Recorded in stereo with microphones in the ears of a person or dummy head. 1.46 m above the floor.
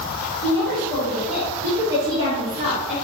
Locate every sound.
0.4 s a woman speaking: 25° left (ahead or behind), 2 m; by 2.9 s 35° right (ahead or behind), 3 m